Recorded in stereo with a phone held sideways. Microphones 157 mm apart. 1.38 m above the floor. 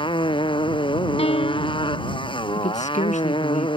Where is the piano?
40° left (ahead or behind).